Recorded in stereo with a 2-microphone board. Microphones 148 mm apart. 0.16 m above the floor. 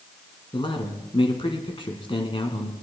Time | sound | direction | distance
0.5 | a man speaking | 35° left (ahead or behind) | 1.6 m